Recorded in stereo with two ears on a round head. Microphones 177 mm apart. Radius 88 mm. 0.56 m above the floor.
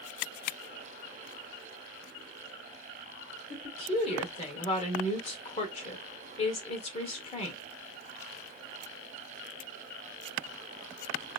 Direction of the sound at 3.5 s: 30° left (ahead or behind).